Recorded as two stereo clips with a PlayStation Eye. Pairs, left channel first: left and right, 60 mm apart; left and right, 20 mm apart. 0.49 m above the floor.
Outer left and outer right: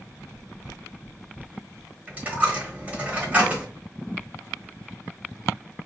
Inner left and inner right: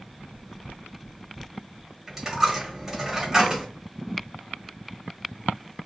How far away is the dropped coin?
About 1.2 m.